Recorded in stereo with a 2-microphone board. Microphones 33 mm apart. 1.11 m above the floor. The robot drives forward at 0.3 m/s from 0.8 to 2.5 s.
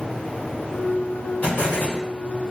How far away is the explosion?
About 1.2 m.